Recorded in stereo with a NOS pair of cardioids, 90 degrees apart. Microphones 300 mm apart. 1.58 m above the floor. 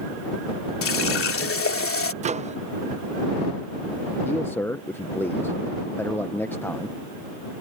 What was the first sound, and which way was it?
A running tap, 50° left.